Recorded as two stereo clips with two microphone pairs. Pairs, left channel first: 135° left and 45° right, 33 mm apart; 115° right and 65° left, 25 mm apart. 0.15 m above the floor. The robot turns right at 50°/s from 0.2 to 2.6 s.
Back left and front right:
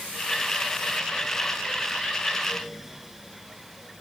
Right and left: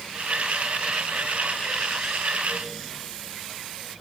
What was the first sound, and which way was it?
Only background noise.